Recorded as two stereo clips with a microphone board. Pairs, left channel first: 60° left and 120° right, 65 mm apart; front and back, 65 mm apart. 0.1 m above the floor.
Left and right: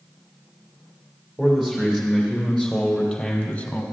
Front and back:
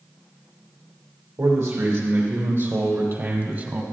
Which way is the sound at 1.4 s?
160° left.